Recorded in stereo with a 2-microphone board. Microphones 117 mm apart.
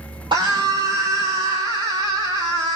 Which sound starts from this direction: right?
A scream, at 0.3 s.